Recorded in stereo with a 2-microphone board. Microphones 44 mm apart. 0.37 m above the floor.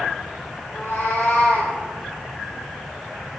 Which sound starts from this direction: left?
A cat meowing, at 0.7 s.